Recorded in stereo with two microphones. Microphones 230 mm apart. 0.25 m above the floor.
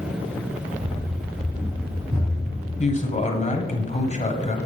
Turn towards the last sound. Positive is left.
turn(degrees=30)  # may be behind; listen again after turning